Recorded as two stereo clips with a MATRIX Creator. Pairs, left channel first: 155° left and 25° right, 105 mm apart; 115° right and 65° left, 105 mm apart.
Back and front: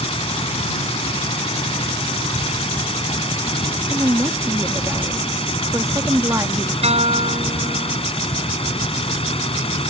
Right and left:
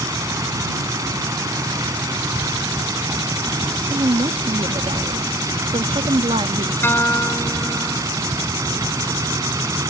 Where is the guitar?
40° right.